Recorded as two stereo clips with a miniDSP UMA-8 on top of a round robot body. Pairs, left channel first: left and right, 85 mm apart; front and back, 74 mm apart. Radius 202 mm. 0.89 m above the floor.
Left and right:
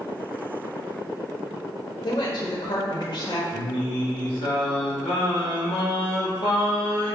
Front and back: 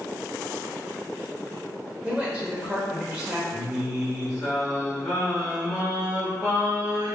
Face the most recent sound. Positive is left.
turn(degrees=85)